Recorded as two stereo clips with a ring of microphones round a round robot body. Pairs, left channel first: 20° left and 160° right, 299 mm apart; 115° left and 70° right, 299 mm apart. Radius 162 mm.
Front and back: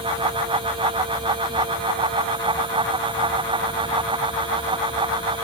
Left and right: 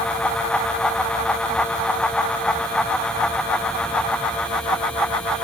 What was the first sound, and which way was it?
Only background noise.